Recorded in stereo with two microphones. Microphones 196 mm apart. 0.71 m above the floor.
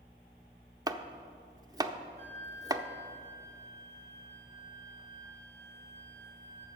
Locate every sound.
0.9 s chopping: 20° right (ahead or behind), 0.5 m
2.2 s a flute: 40° right (ahead or behind), 2.5 m